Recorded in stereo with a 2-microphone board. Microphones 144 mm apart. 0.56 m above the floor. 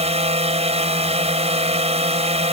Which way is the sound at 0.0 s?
50° right (ahead or behind).